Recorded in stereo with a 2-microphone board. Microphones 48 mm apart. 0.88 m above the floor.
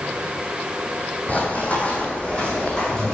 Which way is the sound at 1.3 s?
35° left (ahead or behind).